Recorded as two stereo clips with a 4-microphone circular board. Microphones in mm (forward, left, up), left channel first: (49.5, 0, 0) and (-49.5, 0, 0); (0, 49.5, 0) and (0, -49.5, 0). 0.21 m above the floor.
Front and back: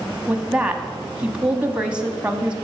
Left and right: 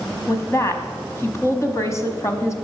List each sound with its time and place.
0.3 s a woman speaking: 110° left, 1.1 m